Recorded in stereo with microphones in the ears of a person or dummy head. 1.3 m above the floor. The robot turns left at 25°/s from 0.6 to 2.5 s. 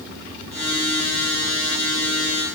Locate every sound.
Only background noise.